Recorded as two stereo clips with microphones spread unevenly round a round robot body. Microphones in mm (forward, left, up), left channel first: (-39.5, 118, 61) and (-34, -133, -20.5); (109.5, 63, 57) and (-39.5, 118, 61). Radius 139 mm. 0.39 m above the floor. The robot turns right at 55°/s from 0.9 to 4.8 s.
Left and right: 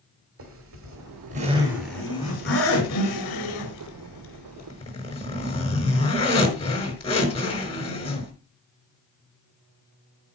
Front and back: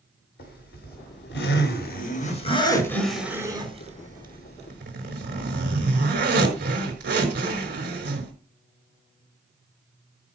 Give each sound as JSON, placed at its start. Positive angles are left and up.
{"t": 0.4, "sound": "a zipper", "azimuth_deg": -55, "distance_m": 5.0}